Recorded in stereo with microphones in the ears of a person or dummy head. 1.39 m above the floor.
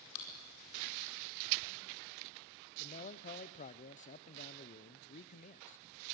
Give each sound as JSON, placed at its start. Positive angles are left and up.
{"t": 0.1, "sound": "chewing", "side_deg": 85, "distance_m": 4.5}
{"t": 2.8, "sound": "a man speaking", "side_deg": 40, "distance_m": 0.5}